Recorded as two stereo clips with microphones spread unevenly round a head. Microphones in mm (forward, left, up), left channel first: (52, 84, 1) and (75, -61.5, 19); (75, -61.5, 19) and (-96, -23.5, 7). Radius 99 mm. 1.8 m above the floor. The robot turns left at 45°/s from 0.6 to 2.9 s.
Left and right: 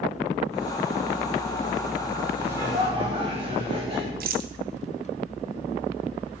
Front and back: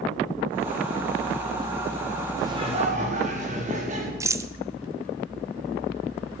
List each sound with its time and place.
2.4 s laughter: 125° right, 5 m; by 4.1 s 145° right, 5 m
4.2 s a rattle: 120° right, 0.8 m